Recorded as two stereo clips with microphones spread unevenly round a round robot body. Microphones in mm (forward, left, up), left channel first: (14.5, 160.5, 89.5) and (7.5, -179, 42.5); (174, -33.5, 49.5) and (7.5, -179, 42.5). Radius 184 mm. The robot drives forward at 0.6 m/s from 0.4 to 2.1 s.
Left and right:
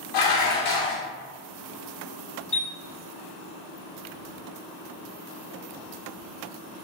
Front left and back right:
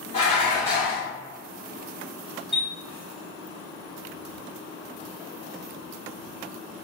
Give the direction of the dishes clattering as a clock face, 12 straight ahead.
9 o'clock.